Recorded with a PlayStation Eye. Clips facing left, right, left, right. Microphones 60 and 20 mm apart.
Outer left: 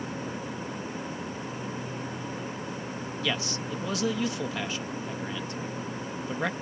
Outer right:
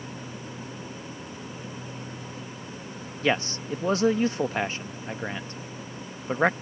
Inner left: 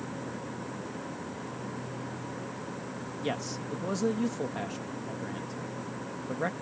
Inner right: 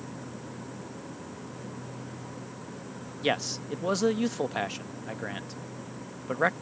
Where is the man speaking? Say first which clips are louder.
Outer right 7 dB, inner right 6 dB; 40° right (ahead or behind).